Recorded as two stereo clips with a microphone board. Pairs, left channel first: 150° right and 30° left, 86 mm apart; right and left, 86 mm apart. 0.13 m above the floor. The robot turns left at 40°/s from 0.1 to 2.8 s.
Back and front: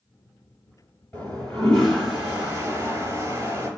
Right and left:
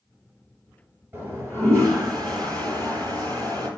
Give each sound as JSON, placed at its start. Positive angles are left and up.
{"t": 1.1, "sound": "a toilet flushing", "azimuth_deg": 145, "distance_m": 2.0}